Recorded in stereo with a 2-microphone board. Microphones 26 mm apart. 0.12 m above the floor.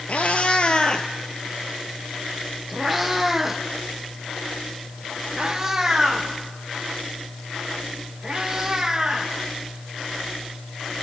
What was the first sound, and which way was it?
A cat meowing, 60° left (ahead or behind).